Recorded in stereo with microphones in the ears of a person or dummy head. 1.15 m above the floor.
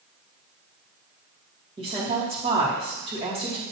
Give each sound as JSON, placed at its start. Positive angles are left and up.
{"t": 1.8, "sound": "a woman speaking", "side_deg": -30, "distance_m": 2.5}